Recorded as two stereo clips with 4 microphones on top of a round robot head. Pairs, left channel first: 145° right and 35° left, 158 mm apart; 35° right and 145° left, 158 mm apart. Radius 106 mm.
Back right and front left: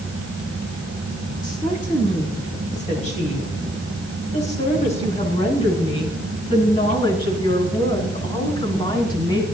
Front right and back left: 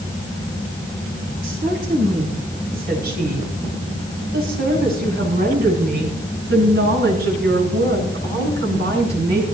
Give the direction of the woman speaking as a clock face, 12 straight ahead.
6 o'clock.